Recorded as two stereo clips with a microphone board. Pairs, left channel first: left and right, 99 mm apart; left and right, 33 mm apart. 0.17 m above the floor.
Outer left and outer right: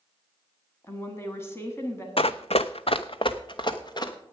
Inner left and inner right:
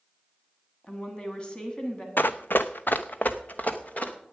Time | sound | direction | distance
0.8 | a woman speaking | 25° left (ahead or behind) | 1.4 m
2.2 | running footsteps | 65° left (ahead or behind) | 0.5 m